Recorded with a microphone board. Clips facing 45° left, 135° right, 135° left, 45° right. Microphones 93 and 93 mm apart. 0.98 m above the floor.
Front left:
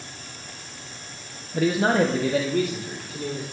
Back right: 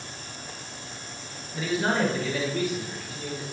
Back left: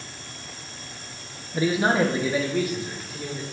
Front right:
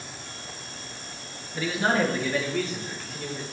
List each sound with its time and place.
1.5 s a man speaking: 75° left, 0.8 m; by 3.4 s 50° left, 2 m